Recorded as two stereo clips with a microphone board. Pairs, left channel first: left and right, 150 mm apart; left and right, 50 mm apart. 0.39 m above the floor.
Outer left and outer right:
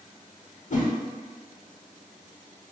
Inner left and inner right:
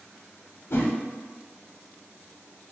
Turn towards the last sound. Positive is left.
turn(degrees=60)  # may be behind; listen again after turning